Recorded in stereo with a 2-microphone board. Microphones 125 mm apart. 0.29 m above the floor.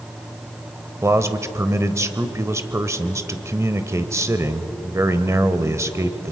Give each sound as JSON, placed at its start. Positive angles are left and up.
{"t": 1.0, "sound": "a man speaking", "side_deg": -25, "distance_m": 0.9}